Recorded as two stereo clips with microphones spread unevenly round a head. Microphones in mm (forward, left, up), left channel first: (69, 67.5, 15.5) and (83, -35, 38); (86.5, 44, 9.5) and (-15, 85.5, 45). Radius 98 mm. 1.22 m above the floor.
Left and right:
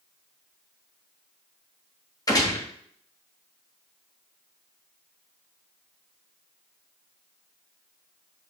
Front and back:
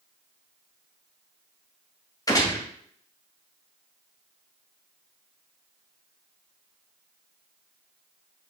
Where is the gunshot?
40° left, 2.5 m.